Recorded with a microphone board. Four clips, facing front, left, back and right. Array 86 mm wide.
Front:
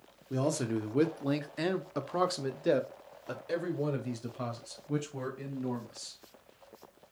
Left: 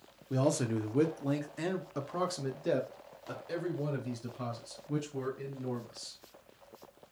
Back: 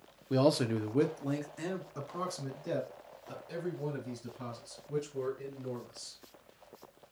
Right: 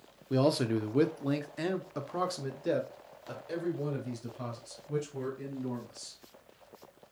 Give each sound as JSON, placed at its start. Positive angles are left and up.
{"t": 0.3, "sound": "a man speaking", "azimuth_deg": -150, "distance_m": 0.8}